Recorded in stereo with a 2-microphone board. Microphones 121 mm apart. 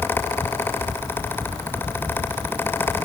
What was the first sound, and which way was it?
Only background noise.